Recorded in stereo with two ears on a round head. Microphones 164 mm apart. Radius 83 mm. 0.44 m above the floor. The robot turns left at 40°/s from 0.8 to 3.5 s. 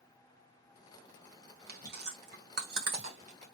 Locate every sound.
1.7 s chewing: 50° right (ahead or behind), 1.7 m; by 3.5 s 35° right (ahead or behind), 1.7 m